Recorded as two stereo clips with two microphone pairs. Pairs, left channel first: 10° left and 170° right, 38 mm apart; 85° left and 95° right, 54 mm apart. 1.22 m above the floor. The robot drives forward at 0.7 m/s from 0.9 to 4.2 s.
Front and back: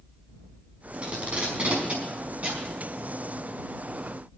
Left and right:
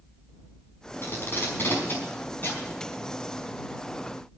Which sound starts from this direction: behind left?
Tape being pulled, at 1.0 s.